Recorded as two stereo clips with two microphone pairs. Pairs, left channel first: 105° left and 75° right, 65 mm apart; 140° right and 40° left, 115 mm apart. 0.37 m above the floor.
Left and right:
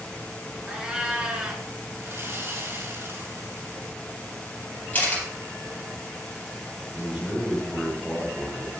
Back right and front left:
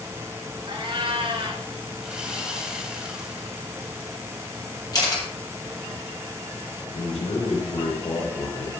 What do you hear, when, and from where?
0.7 s a cat meowing: straight ahead, 2 m
2.0 s sawing: 40° right, 2.5 m
4.9 s a camera shutter: 170° left, 4.5 m
6.9 s a man speaking: 155° right, 6 m